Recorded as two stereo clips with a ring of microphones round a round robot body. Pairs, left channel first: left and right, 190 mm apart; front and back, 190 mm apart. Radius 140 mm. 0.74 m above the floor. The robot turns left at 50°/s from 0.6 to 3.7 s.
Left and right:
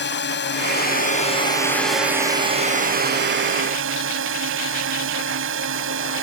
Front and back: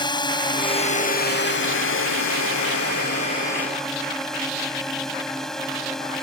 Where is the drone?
65° left; by 6.2 s 90° right.